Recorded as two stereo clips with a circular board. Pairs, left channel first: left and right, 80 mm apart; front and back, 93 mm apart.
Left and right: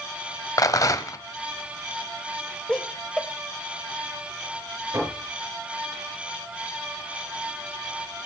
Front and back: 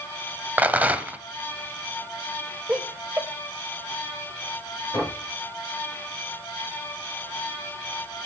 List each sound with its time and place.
0.6 s a rattle: 110° left, 0.9 m
2.7 s laughter: 140° left, 0.9 m
4.9 s knocking: 45° right, 5.5 m